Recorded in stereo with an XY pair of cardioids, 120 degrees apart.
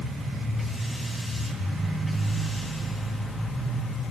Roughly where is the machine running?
Ahead.